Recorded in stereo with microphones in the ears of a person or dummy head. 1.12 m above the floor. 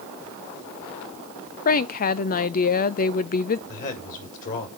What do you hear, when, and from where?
1.6 s a woman speaking: 45° left (ahead or behind), 0.6 m
3.7 s a man speaking: 45° left (ahead or behind), 4 m